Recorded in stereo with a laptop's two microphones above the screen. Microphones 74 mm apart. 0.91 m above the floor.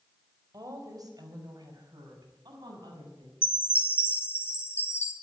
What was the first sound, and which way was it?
A woman speaking, 50° right (ahead or behind).